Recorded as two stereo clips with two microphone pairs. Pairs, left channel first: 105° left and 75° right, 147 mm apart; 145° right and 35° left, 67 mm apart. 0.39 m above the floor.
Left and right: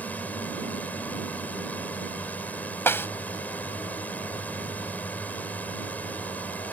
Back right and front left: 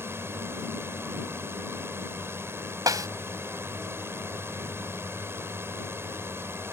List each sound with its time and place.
0.0 s a drone: 35° left
2.9 s a snare drum: 35° left